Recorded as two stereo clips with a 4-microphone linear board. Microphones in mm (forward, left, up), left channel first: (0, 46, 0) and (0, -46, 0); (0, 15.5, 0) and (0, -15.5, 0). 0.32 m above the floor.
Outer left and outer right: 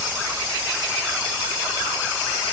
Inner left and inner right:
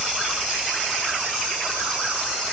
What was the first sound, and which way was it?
Only background noise.